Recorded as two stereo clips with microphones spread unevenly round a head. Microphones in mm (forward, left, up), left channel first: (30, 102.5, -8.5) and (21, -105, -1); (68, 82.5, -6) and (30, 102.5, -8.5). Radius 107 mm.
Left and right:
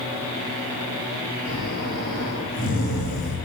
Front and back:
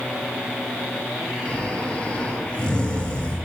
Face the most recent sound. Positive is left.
turn(degrees=40)